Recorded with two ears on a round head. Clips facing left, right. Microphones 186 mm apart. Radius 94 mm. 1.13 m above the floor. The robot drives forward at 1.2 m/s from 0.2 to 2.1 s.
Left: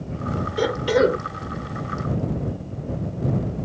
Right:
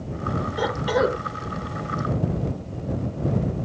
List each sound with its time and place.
0.6 s a cough: 35° left (ahead or behind); by 1.2 s 30° left (ahead or behind)